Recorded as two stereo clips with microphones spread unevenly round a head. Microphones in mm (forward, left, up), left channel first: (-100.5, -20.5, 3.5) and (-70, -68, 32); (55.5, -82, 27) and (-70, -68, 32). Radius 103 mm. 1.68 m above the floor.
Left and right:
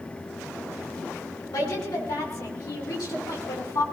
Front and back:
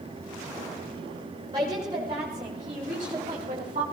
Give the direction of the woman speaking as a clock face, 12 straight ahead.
8 o'clock.